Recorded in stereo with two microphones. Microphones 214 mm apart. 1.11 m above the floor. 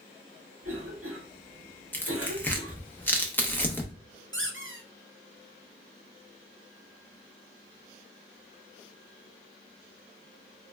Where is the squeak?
60° right (ahead or behind), 0.6 m.